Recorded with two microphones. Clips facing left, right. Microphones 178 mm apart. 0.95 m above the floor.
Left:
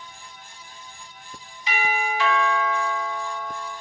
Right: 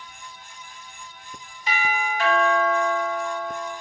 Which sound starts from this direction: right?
A doorbell, at 1.7 s.